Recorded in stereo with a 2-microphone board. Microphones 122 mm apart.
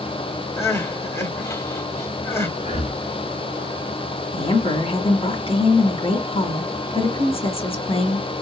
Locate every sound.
0.6 s crying: 20° left (ahead or behind), 0.8 m
2.6 s breathing: 70° left (ahead or behind), 1.0 m
4.3 s a woman speaking: 50° left (ahead or behind), 2 m